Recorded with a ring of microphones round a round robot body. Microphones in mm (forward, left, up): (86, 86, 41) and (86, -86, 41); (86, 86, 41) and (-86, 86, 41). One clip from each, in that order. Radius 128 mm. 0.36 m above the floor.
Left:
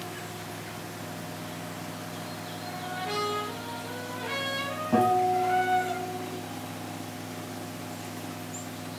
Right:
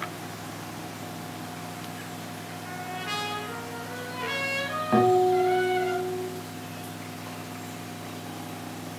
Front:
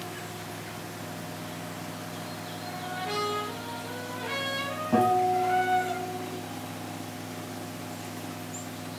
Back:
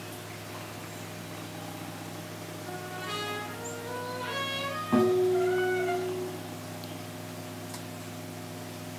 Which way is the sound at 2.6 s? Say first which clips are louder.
Right 1 dB, front 3 dB; 80° right.